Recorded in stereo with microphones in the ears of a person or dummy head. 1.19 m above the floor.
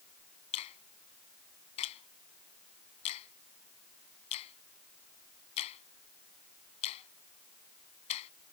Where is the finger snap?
35° left (ahead or behind).